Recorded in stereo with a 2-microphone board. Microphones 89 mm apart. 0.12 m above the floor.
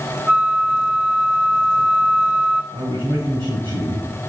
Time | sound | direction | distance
0.3 | a flute | 15° right (ahead or behind) | 0.5 m
2.7 | a man speaking | 70° right (ahead or behind) | 3.5 m